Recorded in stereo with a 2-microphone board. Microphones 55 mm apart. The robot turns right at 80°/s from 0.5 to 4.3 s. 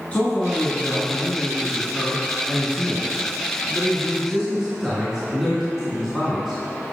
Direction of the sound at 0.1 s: 45° left.